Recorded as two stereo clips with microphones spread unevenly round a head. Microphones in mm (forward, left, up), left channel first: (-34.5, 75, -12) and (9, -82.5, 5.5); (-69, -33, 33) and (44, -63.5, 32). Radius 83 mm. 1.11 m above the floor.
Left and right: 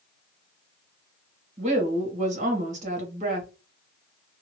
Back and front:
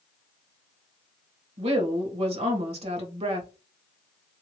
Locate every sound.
1.6 s a woman speaking: 25° right, 1.1 m